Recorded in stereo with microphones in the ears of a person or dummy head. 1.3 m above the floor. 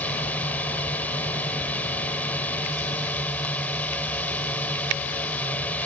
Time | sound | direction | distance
0.0 | a drone | 10° left (ahead or behind) | ?